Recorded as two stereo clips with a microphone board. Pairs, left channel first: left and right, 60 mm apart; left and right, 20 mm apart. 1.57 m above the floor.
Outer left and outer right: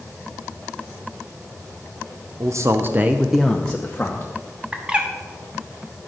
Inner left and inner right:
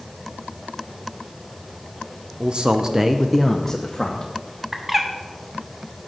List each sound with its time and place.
2.4 s a man speaking: 55° right (ahead or behind), 0.8 m; by 4.3 s 35° left (ahead or behind), 1.1 m
4.7 s a bird: 15° right (ahead or behind), 1.0 m